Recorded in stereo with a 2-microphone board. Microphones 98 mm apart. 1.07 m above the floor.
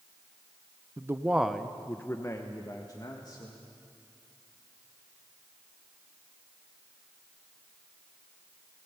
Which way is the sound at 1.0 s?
30° right (ahead or behind).